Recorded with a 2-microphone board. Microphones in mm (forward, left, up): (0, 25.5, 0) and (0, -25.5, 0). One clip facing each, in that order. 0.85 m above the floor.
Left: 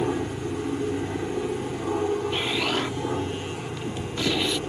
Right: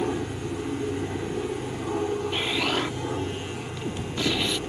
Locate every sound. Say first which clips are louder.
0.0 s an aircraft: left 2 dB; 10° left (ahead or behind)
2.3 s an explosion: even; centre (ahead or behind)